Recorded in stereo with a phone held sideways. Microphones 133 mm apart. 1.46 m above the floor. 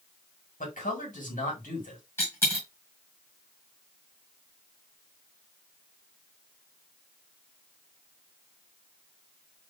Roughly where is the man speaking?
Left.